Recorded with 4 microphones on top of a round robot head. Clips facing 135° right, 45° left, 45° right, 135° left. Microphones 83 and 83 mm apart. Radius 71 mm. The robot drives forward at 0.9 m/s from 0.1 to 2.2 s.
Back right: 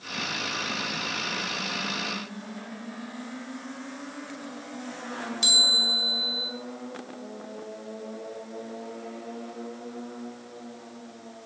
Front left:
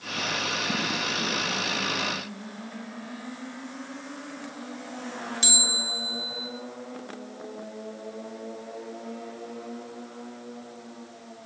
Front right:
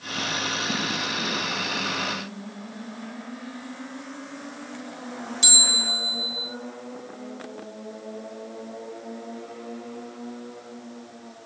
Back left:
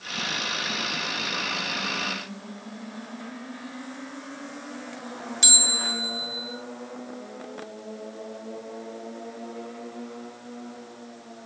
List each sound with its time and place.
5.4 s a bell: 95° left, 1.9 m